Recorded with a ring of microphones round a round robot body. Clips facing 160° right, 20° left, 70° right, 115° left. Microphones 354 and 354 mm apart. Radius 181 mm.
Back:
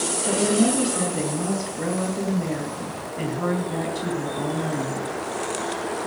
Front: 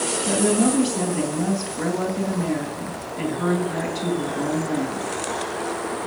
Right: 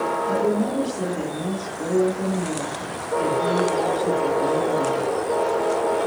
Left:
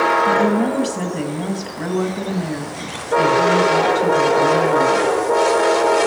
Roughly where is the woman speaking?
Left.